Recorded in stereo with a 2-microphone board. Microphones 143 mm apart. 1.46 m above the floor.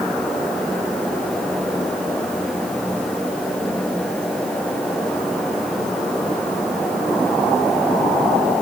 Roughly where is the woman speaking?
No woman speaking in this recording.